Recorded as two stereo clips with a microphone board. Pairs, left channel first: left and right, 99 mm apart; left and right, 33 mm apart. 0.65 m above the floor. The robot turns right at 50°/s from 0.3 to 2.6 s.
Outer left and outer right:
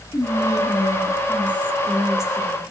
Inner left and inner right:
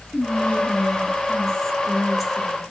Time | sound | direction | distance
0.1 | whispering | 95° left | 0.7 m